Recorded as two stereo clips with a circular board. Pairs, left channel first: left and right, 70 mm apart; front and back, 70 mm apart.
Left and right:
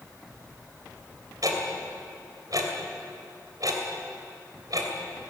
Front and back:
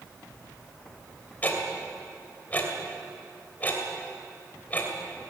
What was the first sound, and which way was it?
Ticking, 65° right.